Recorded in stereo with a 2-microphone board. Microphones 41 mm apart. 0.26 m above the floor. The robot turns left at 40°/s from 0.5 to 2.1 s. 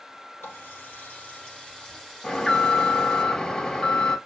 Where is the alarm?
10° left (ahead or behind), 2 m.